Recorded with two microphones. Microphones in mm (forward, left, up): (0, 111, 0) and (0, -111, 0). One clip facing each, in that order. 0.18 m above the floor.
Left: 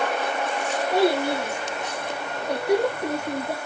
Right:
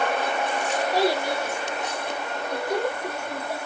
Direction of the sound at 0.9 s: 55° left (ahead or behind).